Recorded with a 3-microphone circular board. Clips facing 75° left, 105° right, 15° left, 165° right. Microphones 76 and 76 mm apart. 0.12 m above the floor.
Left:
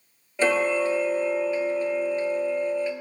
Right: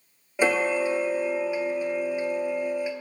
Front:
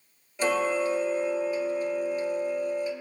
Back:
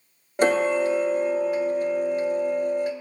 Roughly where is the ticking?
Behind.